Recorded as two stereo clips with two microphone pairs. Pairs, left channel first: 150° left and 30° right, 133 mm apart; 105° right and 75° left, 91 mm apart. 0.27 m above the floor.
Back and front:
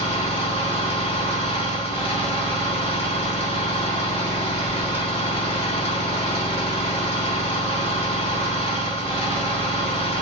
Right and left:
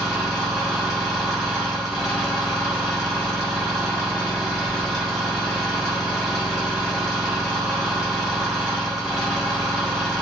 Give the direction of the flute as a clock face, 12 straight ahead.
I don't hear a flute.